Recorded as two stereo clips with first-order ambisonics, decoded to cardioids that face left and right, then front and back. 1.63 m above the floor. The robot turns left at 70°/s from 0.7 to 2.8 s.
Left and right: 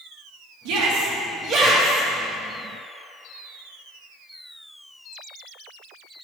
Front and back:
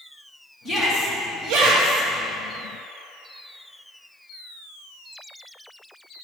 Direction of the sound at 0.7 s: 105° right.